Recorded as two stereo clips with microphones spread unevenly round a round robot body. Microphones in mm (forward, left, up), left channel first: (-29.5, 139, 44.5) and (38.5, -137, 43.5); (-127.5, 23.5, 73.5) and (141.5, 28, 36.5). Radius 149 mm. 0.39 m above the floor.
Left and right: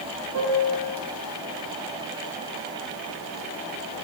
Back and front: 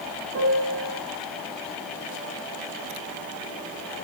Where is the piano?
40° right, 5.5 m.